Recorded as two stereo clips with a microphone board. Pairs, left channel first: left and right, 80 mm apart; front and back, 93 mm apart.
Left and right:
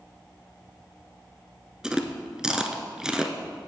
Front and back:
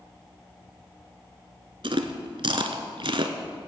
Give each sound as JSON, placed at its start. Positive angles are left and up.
{"t": 1.8, "sound": "chewing", "azimuth_deg": -170, "distance_m": 1.0}